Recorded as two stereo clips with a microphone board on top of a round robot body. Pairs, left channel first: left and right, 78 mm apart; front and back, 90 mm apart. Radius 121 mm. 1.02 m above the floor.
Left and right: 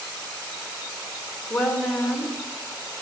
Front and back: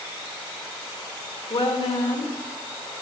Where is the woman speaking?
10° left, 2.5 m.